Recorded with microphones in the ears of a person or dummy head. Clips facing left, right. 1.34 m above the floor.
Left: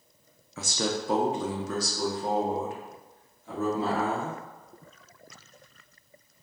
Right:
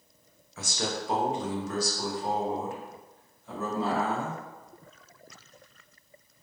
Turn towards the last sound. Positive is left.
turn(degrees=55)  # may be behind; listen again after turning